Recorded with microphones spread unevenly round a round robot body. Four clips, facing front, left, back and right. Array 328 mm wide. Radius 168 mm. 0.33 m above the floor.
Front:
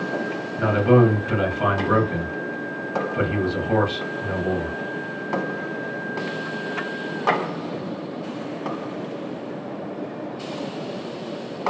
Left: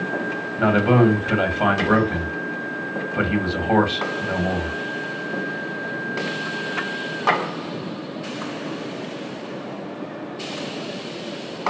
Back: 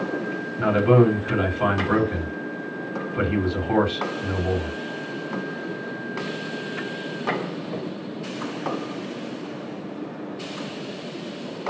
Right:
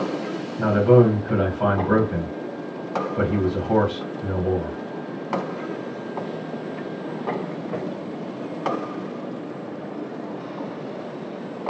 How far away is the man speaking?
About 2.5 m.